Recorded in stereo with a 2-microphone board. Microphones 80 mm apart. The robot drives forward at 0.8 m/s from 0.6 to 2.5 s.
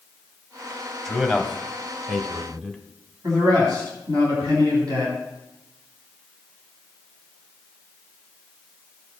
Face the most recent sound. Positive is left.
turn(degrees=-60)  # may be behind; listen again after turning